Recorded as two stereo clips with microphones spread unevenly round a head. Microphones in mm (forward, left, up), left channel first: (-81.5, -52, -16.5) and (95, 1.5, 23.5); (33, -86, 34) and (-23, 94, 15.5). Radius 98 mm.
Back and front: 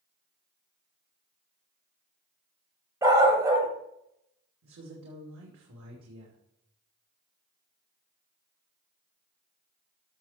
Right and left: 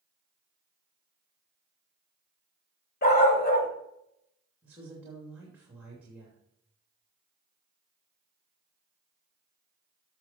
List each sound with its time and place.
3.0 s a dog barking: 45° right, 2.5 m
4.6 s a woman speaking: 25° left, 2.5 m